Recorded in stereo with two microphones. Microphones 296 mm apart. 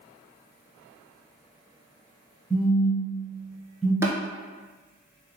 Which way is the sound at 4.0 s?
10° right (ahead or behind).